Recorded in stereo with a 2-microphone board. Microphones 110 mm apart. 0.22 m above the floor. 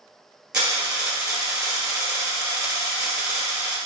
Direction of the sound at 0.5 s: 10° right (ahead or behind).